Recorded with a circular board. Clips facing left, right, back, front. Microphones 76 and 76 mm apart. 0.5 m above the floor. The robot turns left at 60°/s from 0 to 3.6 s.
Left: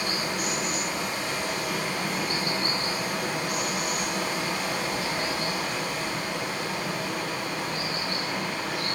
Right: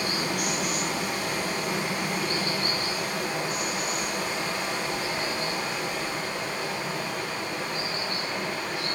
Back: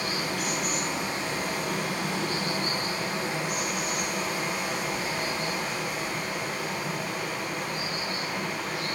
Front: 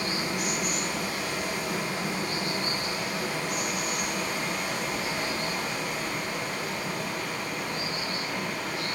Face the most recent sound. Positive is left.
turn(degrees=95)